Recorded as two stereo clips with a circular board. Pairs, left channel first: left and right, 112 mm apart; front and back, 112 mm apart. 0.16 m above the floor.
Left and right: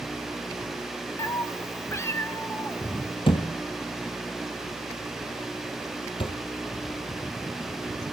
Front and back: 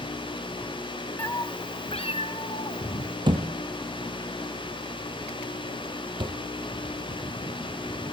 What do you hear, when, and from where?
1.2 s a cat meowing: 55° left, 0.8 m; by 3.2 s 20° left, 3 m
3.3 s a thud: 130° left, 2.5 m